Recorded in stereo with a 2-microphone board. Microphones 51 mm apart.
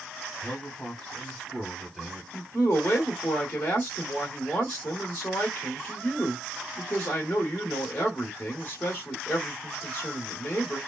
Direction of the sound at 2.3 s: 35° left (ahead or behind).